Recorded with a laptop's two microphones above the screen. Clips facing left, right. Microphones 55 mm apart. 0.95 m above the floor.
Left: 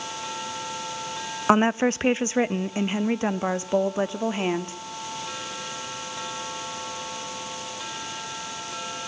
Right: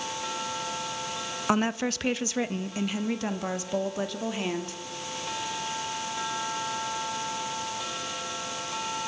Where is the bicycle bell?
No bicycle bell in this recording.